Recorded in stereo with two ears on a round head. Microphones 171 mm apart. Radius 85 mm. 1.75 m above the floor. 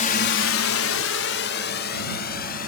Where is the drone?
40° left (ahead or behind); by 2.7 s 50° left (ahead or behind).